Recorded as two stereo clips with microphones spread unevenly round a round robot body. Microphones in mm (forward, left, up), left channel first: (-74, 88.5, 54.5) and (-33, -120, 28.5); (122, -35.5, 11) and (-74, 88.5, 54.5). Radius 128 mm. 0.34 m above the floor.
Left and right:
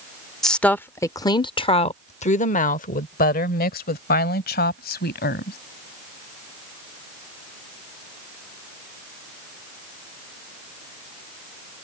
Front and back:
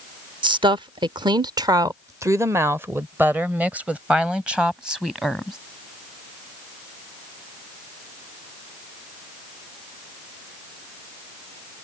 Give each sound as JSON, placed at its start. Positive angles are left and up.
{"t": 0.4, "sound": "a woman speaking", "azimuth_deg": -155}